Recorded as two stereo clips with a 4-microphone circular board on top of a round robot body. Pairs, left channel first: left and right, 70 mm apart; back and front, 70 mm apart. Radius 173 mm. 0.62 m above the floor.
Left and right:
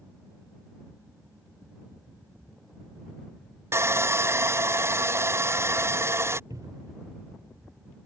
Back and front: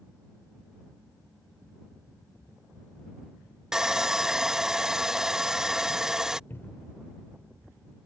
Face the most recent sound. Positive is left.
turn(degrees=-120)